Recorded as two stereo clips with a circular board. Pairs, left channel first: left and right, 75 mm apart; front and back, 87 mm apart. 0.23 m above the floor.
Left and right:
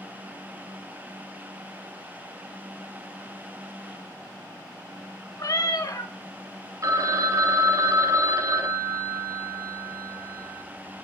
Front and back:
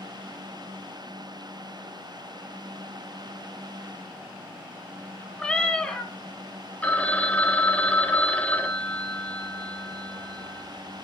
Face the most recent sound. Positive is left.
turn(degrees=-65)